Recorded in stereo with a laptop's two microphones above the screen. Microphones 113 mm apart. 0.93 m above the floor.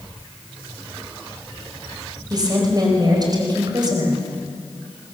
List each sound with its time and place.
2.3 s a woman speaking: 40° right (ahead or behind), 4.5 m